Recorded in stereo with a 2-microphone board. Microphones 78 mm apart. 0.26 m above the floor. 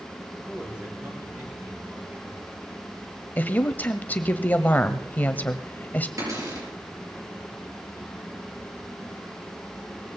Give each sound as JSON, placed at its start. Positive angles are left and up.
{"t": 0.4, "sound": "a man speaking", "side_deg": -20, "distance_m": 5.5}
{"t": 3.4, "sound": "a woman speaking", "side_deg": 20, "distance_m": 0.9}
{"t": 6.2, "sound": "a cupboard door", "side_deg": -45, "distance_m": 7.0}